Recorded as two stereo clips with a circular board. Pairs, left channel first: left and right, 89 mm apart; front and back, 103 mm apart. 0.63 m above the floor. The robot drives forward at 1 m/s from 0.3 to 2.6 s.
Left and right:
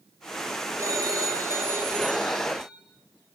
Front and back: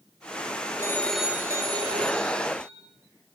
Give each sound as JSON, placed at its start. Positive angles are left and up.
{"t": 0.8, "sound": "a phone ringing", "azimuth_deg": -50, "distance_m": 0.8}